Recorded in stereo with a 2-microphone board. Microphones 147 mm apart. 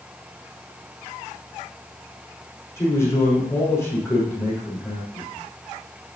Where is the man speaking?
20° left (ahead or behind), 6 m.